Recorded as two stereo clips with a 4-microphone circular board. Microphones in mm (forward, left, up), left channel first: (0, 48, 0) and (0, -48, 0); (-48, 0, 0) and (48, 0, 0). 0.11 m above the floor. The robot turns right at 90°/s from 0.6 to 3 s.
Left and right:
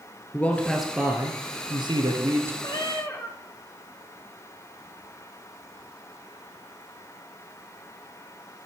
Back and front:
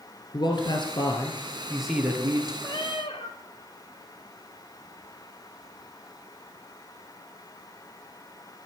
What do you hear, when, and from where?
0.3 s a man speaking: 160° left, 2.0 m; by 2.5 s 25° right, 2.0 m
2.6 s a cat meowing: 125° left, 1.8 m; by 3.4 s 155° left, 1.8 m